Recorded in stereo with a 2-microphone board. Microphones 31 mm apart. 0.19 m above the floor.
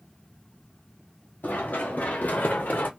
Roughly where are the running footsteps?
Left.